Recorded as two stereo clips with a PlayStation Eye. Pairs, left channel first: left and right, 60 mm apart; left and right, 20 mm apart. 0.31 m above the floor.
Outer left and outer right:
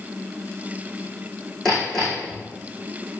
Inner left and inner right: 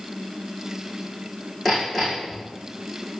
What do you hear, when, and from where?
1.6 s hammering: 5° left (ahead or behind), 6.5 m